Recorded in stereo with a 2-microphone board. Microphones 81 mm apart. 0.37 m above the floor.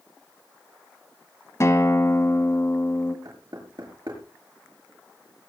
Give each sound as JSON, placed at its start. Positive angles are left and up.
{"t": 1.6, "sound": "a guitar", "side_deg": 40, "distance_m": 1.8}
{"t": 3.2, "sound": "knocking", "side_deg": -55, "distance_m": 5.5}